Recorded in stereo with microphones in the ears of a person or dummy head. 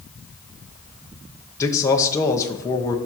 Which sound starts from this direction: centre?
A man speaking, at 1.6 s.